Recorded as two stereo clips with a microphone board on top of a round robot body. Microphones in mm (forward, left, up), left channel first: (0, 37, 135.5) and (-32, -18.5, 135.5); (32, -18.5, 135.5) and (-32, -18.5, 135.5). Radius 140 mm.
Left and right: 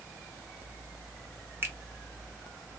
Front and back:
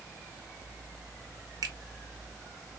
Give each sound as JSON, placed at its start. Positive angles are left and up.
{"t": 1.6, "sound": "a finger snap", "azimuth_deg": -175, "distance_m": 1.3}